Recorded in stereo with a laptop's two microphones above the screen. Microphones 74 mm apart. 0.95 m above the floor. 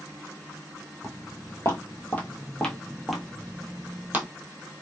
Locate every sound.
1.0 s footsteps: 40° left (ahead or behind), 1.5 m; by 4.3 s 25° right (ahead or behind), 1.1 m